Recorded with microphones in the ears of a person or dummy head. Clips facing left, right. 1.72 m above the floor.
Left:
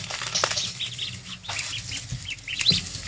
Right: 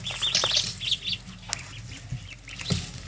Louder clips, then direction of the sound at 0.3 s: Left 3 dB; 25° right (ahead or behind).